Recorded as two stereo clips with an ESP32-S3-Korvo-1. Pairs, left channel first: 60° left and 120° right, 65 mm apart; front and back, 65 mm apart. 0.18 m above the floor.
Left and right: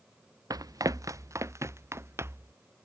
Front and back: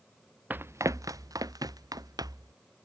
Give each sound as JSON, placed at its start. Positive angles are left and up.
{"t": 0.5, "sound": "running footsteps", "azimuth_deg": -115}